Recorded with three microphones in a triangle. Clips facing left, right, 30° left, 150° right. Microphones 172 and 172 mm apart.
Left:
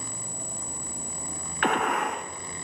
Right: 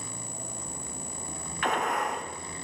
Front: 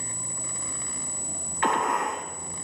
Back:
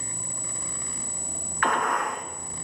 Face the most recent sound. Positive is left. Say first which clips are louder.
# left 3 dB, front 1 dB
turn(degrees=95)